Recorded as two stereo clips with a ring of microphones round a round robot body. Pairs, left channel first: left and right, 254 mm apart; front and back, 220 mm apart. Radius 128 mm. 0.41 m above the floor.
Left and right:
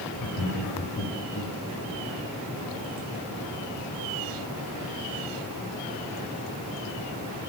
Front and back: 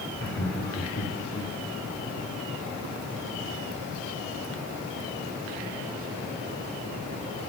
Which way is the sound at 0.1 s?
50° left.